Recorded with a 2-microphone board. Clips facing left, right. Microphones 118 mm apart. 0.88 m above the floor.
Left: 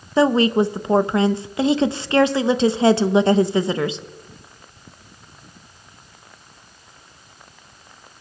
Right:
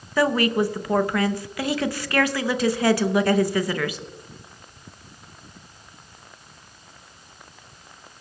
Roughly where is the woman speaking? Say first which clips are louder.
Left 4 dB; left.